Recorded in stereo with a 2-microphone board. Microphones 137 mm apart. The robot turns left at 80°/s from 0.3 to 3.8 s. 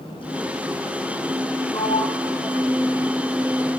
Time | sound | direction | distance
1.7 | a sliding door | 30° left (ahead or behind) | 1.2 m